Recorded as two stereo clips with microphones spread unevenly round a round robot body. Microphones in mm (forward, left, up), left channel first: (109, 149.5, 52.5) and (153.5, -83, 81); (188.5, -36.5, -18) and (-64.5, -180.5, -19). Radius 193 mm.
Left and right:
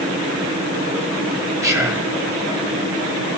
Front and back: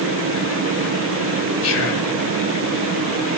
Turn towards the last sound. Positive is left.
turn(degrees=0)